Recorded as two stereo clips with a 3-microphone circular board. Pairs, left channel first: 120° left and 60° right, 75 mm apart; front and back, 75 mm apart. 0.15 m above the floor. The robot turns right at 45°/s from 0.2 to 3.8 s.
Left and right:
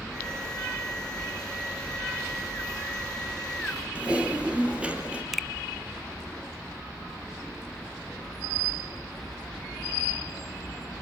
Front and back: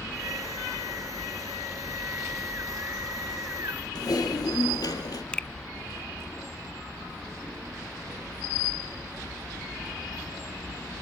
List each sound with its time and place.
4.0 s typing on a keyboard: 15° left, 4 m
5.3 s a finger snap: 30° left, 0.8 m